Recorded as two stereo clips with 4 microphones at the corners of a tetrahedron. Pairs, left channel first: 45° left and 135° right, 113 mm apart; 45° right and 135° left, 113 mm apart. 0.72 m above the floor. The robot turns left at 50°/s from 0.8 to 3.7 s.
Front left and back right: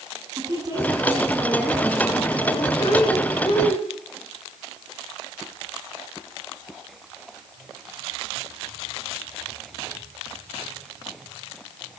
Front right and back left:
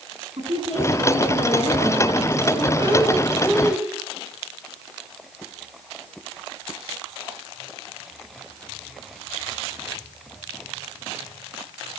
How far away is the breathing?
About 4 m.